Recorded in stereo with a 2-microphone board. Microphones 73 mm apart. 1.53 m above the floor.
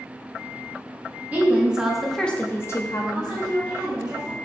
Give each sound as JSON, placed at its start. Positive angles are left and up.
{"t": 1.3, "sound": "a woman speaking", "side_deg": -20, "distance_m": 1.0}
{"t": 3.1, "sound": "a woman speaking", "side_deg": -55, "distance_m": 1.5}